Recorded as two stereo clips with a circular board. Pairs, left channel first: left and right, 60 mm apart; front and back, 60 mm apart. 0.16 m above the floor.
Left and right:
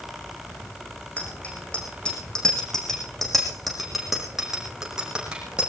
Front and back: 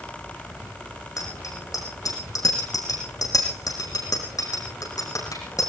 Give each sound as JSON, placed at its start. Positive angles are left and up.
{"t": 1.2, "sound": "a bicycle bell", "azimuth_deg": 20, "distance_m": 7.0}